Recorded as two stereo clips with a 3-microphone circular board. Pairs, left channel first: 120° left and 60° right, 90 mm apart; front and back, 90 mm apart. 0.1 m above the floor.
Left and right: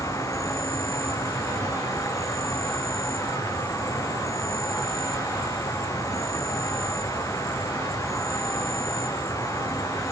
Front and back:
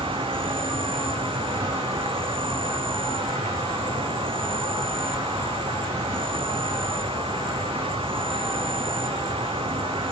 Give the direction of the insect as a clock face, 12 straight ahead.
6 o'clock.